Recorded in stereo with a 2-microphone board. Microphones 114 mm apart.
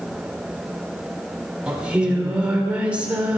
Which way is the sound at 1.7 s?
10° right (ahead or behind).